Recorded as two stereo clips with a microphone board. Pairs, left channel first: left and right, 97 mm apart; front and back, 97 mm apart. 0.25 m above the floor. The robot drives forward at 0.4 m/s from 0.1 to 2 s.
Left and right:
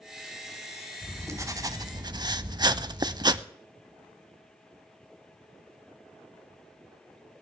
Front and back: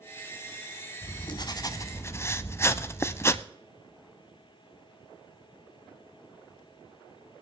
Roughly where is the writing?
Ahead right.